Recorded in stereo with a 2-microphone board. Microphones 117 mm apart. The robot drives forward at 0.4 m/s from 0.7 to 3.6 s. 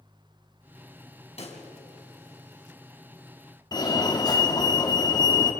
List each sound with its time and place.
1.4 s a pop: 65° left (ahead or behind), 4 m; by 1.6 s 60° left (ahead or behind), 4 m
3.7 s a fire alarm: 35° left (ahead or behind), 2 m